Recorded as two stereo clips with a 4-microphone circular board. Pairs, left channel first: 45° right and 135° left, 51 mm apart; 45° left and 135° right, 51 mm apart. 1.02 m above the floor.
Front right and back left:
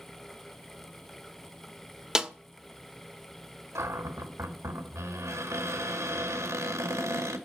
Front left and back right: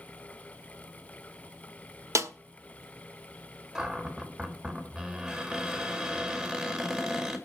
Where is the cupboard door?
145° left, 2 m.